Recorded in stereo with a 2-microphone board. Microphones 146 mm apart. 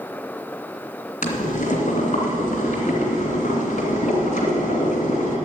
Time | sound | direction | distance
1.2 | boiling | 60° left (ahead or behind) | 2.5 m